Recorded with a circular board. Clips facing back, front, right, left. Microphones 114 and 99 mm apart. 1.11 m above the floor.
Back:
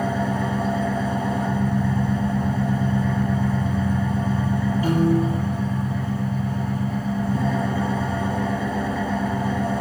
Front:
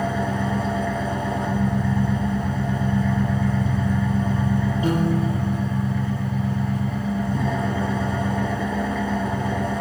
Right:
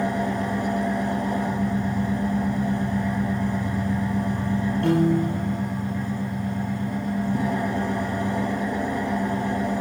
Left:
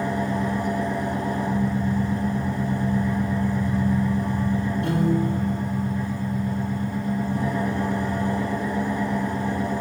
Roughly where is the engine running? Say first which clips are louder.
Back 1 dB, even; right.